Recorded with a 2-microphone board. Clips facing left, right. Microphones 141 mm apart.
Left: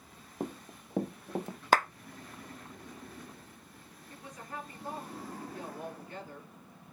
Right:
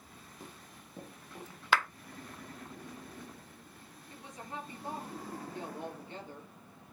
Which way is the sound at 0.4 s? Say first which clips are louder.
Left 15 dB; 65° left (ahead or behind).